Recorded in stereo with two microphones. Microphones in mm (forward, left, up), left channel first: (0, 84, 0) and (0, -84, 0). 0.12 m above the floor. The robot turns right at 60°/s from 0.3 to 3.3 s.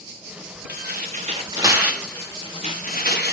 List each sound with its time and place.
0.7 s tearing paper: 80° right, 5.5 m; by 3.3 s 80° left, 5.5 m